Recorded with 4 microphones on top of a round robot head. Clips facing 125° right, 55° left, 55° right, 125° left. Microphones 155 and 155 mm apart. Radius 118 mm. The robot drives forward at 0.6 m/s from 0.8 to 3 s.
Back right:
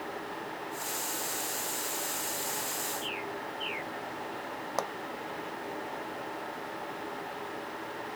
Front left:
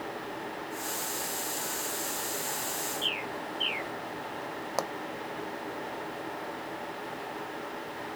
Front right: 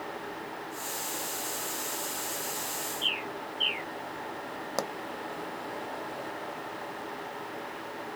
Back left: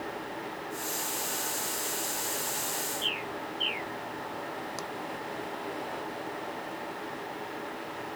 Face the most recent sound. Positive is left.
turn(degrees=-25)